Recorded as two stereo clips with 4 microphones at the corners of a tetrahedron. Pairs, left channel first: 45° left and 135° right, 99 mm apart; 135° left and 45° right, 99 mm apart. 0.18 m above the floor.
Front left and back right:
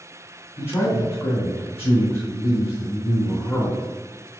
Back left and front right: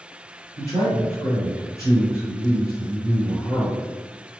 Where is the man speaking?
90° left, 1.9 m.